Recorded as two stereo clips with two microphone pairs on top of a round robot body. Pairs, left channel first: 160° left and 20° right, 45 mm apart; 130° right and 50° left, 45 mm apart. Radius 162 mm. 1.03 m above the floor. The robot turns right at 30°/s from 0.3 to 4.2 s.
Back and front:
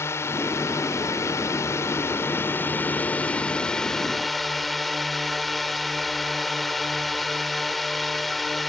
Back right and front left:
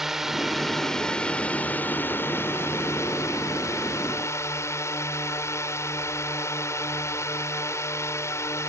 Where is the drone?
135° left; by 8.7 s 110° right.